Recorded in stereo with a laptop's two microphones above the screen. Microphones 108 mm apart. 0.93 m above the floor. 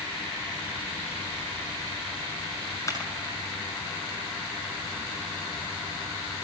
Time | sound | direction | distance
2.9 | a clap | 30° left (ahead or behind) | 8.5 m